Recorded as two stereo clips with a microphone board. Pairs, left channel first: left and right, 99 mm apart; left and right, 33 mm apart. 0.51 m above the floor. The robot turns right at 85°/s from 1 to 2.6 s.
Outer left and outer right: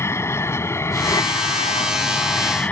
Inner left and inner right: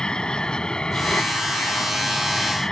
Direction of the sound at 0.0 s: 25° left.